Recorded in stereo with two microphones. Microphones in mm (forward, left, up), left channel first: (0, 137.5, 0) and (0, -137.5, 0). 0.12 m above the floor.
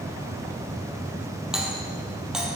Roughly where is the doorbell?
Centre.